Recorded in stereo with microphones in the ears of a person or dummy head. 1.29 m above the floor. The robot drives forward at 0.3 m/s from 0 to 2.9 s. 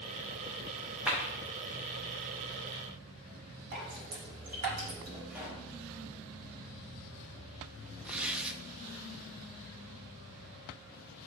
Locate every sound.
1.1 s a clap: 5° right (ahead or behind), 1.5 m
3.7 s dripping: 40° right (ahead or behind), 2 m
5.3 s a pop: 5° right (ahead or behind), 1.4 m
8.1 s tearing paper: 10° right (ahead or behind), 0.6 m